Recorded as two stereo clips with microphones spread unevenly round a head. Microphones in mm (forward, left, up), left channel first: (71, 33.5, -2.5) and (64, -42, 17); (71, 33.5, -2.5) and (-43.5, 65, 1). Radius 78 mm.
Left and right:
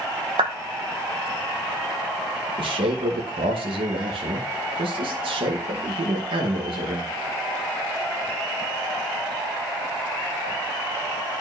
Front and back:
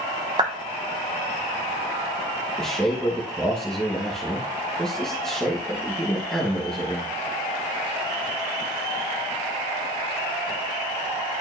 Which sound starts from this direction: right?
A man speaking, at 2.6 s.